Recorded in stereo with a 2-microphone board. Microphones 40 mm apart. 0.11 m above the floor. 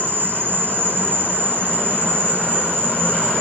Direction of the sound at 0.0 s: 55° right (ahead or behind).